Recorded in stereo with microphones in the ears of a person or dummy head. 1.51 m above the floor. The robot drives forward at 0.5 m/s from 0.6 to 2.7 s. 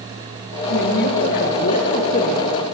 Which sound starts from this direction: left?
A woman speaking, at 0.7 s.